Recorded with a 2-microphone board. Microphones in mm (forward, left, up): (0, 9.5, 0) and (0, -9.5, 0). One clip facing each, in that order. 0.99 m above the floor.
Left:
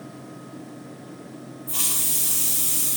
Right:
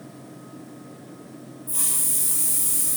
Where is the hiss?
50° left (ahead or behind), 5 m.